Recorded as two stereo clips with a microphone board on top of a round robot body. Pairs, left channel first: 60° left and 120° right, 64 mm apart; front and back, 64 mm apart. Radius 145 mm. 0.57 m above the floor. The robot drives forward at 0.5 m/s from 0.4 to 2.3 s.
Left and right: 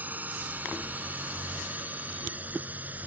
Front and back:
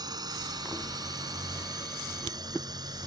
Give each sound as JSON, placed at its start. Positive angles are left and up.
{"t": 0.0, "sound": "a drone", "azimuth_deg": 175}